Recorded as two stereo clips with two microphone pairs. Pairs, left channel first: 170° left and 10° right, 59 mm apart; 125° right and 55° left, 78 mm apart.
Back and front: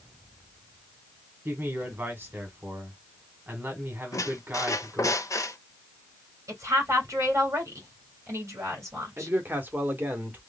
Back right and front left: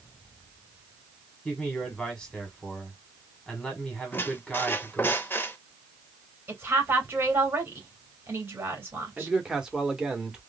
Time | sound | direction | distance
1.4 | a man speaking | 45° right | 1.2 m
4.1 | a squeak | 170° left | 0.6 m
6.5 | a woman speaking | 5° left | 2.5 m
9.2 | a man speaking | 15° right | 1.0 m